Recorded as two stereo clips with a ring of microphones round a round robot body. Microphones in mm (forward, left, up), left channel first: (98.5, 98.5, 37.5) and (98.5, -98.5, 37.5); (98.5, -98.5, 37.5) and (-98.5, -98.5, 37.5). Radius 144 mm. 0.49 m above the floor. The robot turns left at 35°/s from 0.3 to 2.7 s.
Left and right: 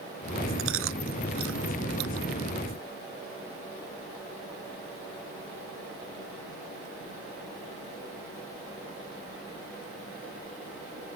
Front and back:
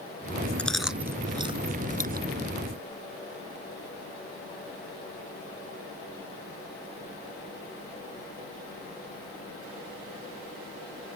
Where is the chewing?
85° right; by 2.3 s 140° right.